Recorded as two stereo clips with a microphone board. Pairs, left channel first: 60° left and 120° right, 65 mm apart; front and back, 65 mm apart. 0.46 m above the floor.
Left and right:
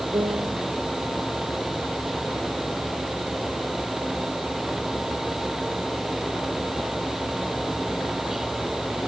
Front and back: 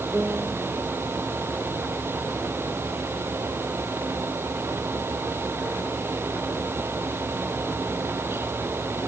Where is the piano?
115° right.